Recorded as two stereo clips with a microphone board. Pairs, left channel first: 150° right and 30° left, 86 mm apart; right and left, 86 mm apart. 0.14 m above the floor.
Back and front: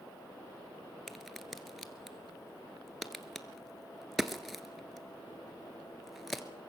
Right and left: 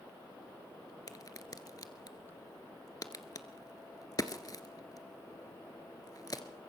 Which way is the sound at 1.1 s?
60° right.